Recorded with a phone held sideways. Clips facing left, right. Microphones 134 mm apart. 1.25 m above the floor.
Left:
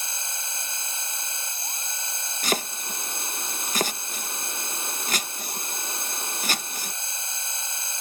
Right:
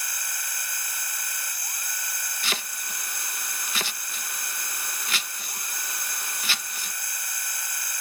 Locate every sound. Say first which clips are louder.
0.0 s a machine running: left 1 dB; 25° left (ahead or behind)
2.4 s chopping: left 8 dB; 40° left (ahead or behind)